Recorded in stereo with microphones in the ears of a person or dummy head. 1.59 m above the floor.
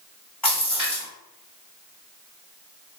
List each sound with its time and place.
0.4 s a splash: 5° left (ahead or behind), 1.8 m